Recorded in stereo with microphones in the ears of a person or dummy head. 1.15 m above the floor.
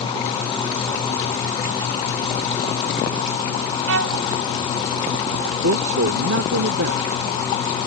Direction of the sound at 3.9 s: 75° right (ahead or behind).